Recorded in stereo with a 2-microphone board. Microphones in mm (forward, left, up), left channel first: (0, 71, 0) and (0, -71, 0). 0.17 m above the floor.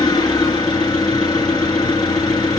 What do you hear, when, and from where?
0.0 s an engine running: 30° left (ahead or behind), 2 m